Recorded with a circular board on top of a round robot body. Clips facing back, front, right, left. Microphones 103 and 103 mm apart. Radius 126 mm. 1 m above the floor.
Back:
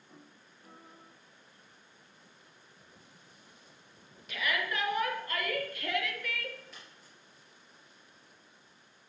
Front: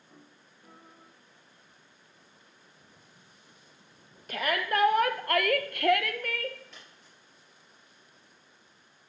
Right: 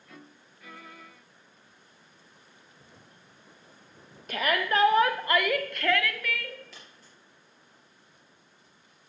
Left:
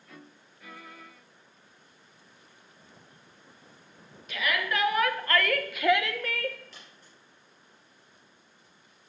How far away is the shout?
About 1.8 m.